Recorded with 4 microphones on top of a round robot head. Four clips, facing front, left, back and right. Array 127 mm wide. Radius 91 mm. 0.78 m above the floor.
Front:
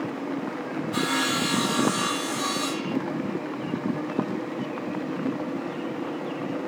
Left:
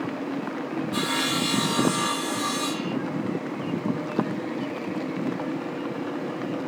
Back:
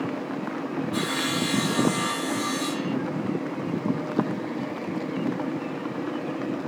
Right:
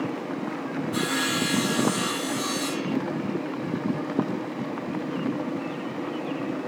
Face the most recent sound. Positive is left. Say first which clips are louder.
# even, front 1 dB
turn(degrees=10)